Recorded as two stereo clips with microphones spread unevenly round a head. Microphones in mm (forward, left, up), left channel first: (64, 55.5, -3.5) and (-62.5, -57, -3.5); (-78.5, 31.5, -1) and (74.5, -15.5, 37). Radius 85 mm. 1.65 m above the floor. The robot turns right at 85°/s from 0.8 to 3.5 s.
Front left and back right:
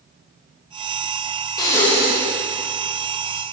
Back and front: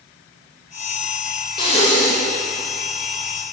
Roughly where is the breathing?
Left.